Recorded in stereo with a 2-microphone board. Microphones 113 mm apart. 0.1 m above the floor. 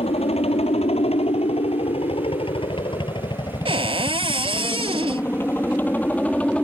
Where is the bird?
No bird in this recording.